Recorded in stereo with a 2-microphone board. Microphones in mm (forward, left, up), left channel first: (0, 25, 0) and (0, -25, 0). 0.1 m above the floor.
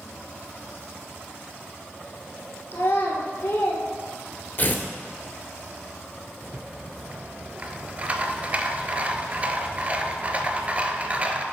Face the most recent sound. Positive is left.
turn(degrees=-30)  # may be behind; listen again after turning